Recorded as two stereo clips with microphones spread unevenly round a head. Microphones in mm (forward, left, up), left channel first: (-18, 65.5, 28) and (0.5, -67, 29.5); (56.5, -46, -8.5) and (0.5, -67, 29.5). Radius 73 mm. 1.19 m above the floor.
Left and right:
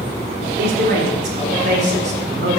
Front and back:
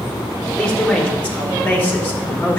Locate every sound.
0.6 s a man speaking: 50° right, 5 m; by 2.6 s 35° right, 5.5 m